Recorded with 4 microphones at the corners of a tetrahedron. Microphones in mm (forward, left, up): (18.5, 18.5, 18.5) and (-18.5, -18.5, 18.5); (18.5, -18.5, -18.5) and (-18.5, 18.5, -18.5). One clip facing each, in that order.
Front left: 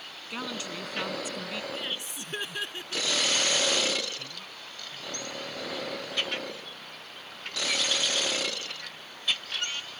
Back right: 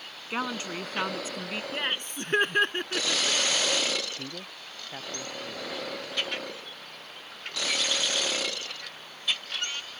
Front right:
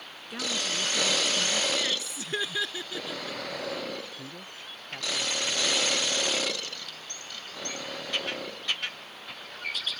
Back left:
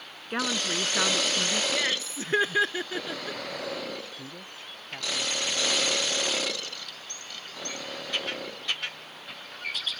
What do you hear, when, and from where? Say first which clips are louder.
0.3 s a woman speaking: back right 4 dB, back left 3 dB; 170° left
1.7 s laughter: back right 4 dB, back left 2 dB; 170° right
4.2 s a man speaking: back right 3 dB, even; 140° right